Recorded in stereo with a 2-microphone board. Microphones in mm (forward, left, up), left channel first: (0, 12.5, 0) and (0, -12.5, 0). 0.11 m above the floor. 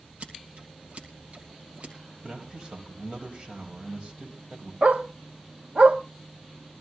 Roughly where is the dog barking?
Right.